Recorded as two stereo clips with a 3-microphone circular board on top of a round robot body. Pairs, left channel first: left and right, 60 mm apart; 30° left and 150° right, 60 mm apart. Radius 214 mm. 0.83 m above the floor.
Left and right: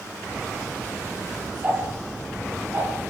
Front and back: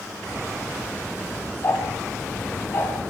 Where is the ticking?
25° right, 6.5 m.